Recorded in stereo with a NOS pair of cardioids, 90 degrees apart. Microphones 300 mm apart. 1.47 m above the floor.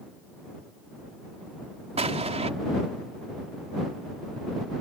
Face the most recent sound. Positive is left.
turn(degrees=-20)